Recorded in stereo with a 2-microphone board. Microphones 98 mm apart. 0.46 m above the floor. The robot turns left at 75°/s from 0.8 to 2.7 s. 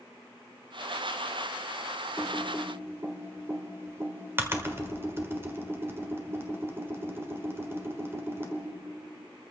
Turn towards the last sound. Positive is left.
turn(degrees=-25)  # may be behind; listen again after turning